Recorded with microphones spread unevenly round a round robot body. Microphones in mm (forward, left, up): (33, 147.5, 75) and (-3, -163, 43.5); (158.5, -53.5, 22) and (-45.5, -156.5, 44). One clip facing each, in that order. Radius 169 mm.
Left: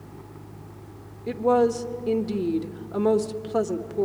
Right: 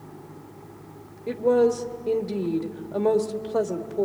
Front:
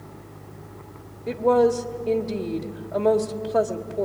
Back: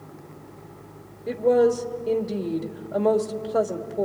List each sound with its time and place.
1.3 s a woman speaking: 115° left, 1.3 m